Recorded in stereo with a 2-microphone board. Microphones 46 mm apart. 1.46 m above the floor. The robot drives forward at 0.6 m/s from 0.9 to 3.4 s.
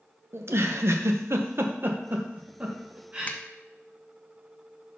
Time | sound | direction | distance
0.3 | a giggle | 70° right (ahead or behind) | 0.7 m
3.3 | a finger snap | 35° left (ahead or behind) | 0.5 m